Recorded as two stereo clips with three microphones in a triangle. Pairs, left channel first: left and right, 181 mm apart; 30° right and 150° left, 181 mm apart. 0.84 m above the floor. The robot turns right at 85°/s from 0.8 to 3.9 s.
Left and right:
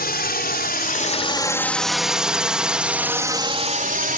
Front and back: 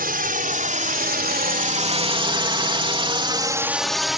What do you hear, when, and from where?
0.0 s a drone: 120° left; by 4.2 s 120° right